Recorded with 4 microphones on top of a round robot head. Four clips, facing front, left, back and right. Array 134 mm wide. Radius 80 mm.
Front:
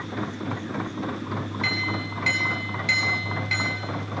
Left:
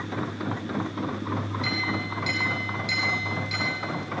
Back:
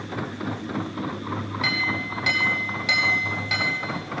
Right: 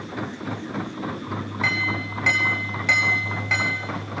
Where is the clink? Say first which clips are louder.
Right 2 dB, back 3 dB; 115° right, 5.5 m.